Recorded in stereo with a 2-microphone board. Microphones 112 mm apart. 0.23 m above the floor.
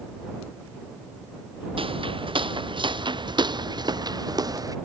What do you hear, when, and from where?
1.8 s footsteps: 55° right (ahead or behind); by 4.8 s 35° right (ahead or behind)